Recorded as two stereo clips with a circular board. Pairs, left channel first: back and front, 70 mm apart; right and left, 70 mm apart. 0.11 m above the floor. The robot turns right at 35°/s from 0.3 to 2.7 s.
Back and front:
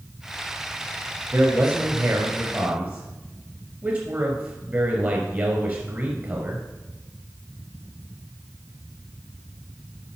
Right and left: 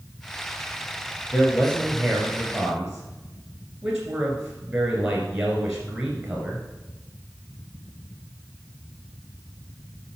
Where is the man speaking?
25° right, 2.0 m; by 6.6 s 20° left, 2.0 m.